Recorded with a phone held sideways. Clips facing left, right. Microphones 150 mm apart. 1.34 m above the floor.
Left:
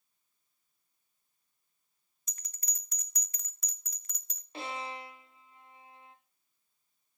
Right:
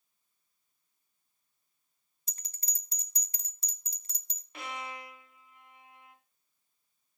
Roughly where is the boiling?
I don't hear boiling.